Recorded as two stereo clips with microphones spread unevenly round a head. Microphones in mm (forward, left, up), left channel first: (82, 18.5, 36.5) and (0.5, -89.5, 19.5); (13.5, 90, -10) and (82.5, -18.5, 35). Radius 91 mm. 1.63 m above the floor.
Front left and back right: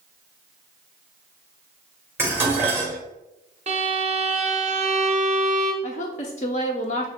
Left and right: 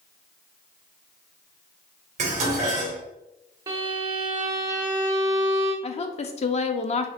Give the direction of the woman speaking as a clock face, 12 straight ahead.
9 o'clock.